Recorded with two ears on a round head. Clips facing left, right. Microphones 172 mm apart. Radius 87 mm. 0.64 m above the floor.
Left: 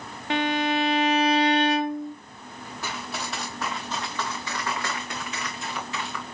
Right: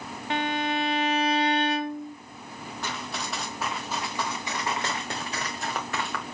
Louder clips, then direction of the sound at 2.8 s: Left 1 dB; 5° left (ahead or behind).